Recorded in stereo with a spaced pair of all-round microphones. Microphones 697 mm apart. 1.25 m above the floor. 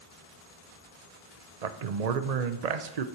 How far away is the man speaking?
About 0.7 m.